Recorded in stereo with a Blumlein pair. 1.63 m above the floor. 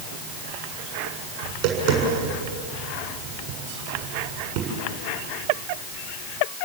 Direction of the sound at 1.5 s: 40° right.